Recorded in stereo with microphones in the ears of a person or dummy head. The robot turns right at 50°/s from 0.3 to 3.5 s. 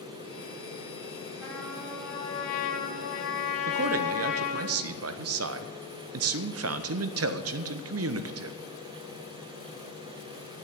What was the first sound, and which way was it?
A trumpet, straight ahead.